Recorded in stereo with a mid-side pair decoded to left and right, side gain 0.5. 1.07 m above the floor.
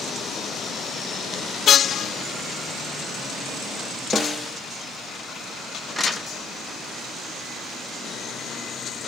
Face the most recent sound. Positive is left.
turn(degrees=0)